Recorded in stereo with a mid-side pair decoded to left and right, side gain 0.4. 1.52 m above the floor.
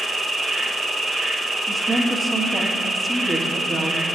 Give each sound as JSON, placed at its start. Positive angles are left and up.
{"t": 0.0, "sound": "an insect", "azimuth_deg": -30, "distance_m": 1.4}
{"t": 1.7, "sound": "a woman speaking", "azimuth_deg": -25, "distance_m": 1.6}